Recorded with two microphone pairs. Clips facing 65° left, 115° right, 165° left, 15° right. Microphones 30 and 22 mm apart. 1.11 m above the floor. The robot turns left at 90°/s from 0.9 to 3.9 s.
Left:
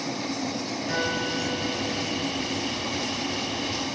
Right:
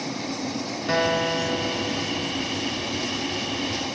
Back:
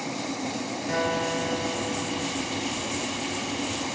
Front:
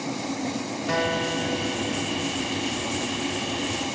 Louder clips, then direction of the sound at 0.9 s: Right 6 dB, front 2 dB; 70° right.